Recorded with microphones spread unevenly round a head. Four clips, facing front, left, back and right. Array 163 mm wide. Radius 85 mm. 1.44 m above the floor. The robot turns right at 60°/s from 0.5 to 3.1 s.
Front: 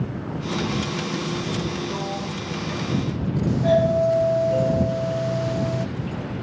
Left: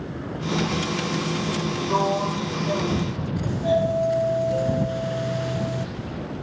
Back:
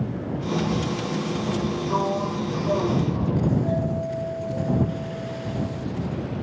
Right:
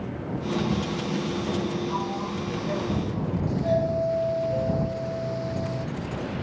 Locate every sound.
1.9 s a sliding door: 115° left; by 3.4 s 175° right
3.5 s a doorbell: 15° left